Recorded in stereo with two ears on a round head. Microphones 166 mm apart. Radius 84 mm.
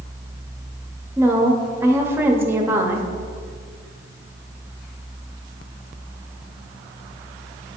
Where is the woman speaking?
10° right (ahead or behind), 0.6 m.